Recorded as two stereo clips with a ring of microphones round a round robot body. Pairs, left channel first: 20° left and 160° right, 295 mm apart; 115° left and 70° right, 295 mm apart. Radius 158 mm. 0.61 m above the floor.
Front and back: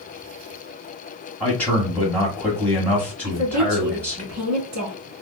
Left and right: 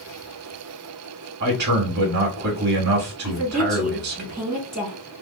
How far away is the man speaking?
About 1.4 m.